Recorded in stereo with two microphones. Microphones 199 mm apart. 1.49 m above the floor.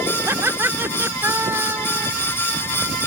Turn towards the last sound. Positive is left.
turn(degrees=-10)  # may be behind; listen again after turning